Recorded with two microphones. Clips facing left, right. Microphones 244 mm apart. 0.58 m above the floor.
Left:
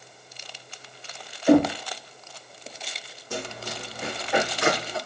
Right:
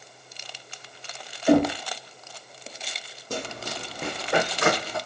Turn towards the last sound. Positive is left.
turn(degrees=-55)  # may be behind; listen again after turning